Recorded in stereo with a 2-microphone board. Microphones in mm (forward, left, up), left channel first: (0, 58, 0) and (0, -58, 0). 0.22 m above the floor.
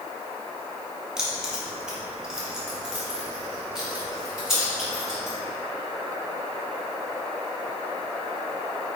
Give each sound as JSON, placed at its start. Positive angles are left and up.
{"t": 1.2, "sound": "keys jangling", "side_deg": -5, "distance_m": 1.7}